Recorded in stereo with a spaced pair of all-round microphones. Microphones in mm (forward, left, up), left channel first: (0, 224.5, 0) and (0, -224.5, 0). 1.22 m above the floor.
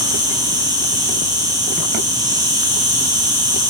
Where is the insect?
10° right (ahead or behind), 2 m.